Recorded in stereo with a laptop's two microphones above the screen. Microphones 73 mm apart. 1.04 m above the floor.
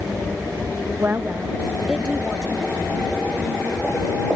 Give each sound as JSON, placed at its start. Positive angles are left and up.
{"t": 1.0, "sound": "a woman speaking", "side_deg": -35}